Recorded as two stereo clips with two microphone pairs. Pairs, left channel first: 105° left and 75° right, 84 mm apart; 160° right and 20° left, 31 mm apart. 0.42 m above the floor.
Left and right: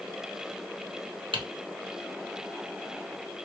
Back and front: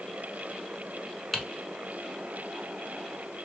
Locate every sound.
1.3 s typing on a keyboard: 80° right, 0.8 m